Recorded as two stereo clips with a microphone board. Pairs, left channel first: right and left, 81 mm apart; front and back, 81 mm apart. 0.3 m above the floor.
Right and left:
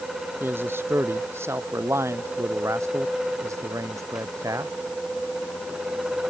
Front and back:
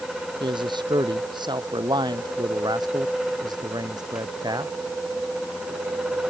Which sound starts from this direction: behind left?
A man speaking, at 0.4 s.